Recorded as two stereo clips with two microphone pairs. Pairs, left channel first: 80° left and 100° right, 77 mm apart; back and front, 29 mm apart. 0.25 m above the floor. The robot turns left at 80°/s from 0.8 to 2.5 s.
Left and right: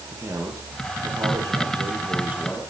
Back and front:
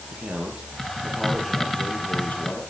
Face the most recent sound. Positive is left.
turn(degrees=175)